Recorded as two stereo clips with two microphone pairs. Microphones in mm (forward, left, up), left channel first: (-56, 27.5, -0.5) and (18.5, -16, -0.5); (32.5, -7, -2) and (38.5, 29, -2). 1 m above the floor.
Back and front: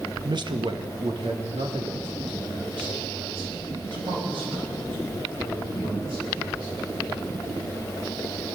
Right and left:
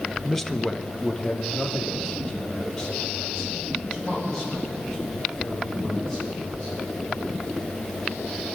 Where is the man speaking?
15° right, 0.6 m; by 6.8 s 25° right, 8.5 m.